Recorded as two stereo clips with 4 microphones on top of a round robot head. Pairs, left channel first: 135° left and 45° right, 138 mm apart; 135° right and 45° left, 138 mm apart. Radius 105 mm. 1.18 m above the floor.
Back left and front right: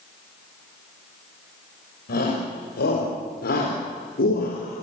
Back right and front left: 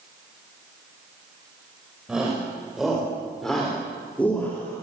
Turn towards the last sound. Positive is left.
turn(degrees=155)